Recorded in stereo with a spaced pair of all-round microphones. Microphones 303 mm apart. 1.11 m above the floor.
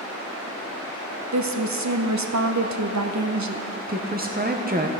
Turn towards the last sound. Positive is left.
turn(degrees=-30)  # may be behind; listen again after turning